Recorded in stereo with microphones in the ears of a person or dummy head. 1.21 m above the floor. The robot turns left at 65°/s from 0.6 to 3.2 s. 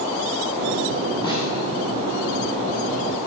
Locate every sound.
1.2 s a snare drum: 20° left (ahead or behind), 8 m; by 1.5 s 35° left (ahead or behind), 8 m